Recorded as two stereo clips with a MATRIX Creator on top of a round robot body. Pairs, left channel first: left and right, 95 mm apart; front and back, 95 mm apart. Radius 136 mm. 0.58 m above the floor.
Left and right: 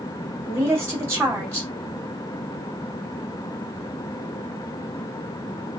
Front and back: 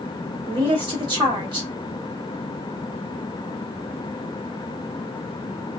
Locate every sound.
0.5 s a woman speaking: 150° right, 1.8 m